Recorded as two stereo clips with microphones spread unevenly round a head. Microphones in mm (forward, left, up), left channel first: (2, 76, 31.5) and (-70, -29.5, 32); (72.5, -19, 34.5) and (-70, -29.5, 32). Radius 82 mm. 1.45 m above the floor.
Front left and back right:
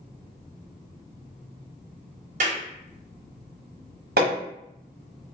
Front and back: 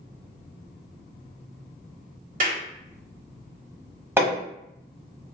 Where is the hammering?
100° right, 1.2 m.